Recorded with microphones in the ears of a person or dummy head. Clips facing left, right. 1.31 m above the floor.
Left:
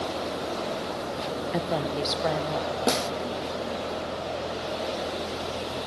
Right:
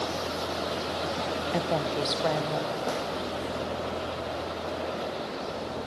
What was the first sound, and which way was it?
A woman speaking, 5° left (ahead or behind).